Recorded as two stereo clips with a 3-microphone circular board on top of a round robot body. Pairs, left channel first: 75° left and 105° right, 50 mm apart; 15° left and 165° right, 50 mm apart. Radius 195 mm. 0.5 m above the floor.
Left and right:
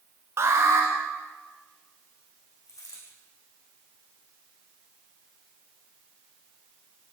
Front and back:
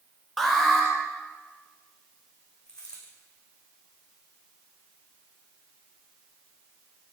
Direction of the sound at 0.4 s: 70° right.